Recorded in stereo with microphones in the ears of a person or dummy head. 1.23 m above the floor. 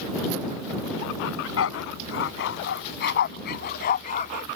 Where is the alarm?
No alarm in this recording.